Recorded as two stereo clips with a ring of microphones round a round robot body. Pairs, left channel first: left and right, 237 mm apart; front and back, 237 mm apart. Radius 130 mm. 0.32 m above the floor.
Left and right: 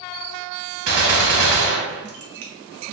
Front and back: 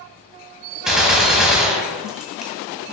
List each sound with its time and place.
0.9 s a gunshot: 90° right, 2 m